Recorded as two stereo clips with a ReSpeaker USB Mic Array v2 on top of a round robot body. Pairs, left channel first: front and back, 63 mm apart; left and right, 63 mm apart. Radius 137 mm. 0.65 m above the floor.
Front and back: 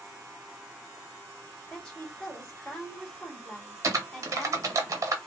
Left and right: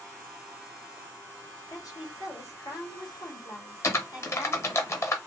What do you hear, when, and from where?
1.7 s a woman speaking: 75° left, 2.0 m
3.8 s typing on a keyboard: 140° left, 0.8 m